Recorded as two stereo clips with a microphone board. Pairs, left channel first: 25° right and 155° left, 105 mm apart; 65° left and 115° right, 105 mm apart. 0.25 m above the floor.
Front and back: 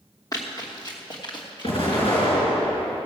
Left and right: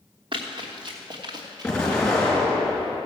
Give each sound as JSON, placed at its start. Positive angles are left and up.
{"t": 0.3, "sound": "running footsteps", "azimuth_deg": -80, "distance_m": 2.5}
{"t": 1.6, "sound": "an explosion", "azimuth_deg": -10, "distance_m": 4.0}